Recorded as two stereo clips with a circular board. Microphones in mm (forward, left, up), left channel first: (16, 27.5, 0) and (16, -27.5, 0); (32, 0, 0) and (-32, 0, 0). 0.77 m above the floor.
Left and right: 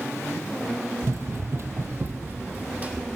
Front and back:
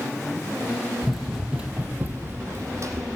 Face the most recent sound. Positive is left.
turn(degrees=-155)